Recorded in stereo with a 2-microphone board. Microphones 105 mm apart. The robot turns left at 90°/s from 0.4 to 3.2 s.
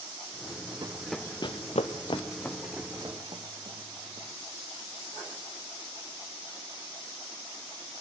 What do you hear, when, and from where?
0.8 s running footsteps: 45° right (ahead or behind), 0.6 m; by 4.3 s 65° right (ahead or behind), 2 m